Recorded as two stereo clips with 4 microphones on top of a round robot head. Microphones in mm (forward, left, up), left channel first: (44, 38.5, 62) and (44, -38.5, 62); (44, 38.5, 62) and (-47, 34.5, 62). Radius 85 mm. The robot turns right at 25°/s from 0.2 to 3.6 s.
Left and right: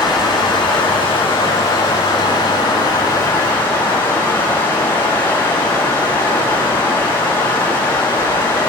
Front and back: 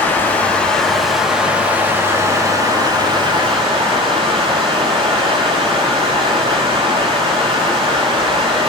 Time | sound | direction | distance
0.0 | running water | 70° left | 8.5 m